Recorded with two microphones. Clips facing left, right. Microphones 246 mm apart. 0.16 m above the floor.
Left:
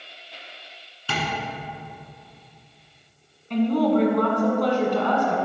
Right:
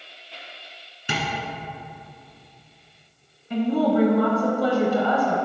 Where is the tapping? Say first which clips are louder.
Even; 20° right (ahead or behind), 2 m.